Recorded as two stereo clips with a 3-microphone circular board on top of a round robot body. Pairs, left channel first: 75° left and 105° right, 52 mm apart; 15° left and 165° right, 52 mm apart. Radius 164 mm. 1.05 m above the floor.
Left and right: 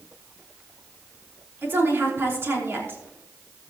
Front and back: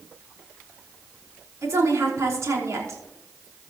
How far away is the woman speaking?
About 4.5 m.